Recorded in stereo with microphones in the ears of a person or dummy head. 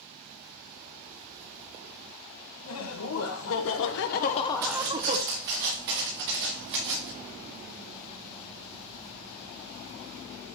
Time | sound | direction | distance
2.6 | laughter | 80° left | 1.7 m
4.6 | footsteps | 55° right (ahead or behind) | 5 m